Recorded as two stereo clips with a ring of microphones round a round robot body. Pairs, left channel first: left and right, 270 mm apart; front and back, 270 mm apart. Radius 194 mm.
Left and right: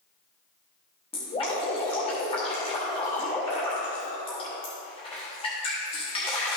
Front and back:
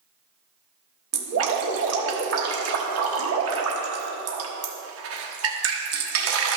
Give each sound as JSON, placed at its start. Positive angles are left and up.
{"t": 1.1, "sound": "dripping", "azimuth_deg": 160, "distance_m": 1.3}